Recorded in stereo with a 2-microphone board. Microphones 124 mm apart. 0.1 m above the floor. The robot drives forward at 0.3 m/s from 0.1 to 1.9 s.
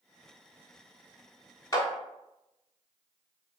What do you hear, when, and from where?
1.7 s a clap: 25° left (ahead or behind), 0.9 m